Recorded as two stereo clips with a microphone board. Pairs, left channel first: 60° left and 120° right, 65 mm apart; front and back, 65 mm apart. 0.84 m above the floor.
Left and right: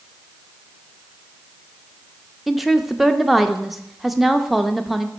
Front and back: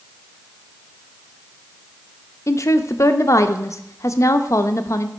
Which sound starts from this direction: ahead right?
A woman speaking, at 2.5 s.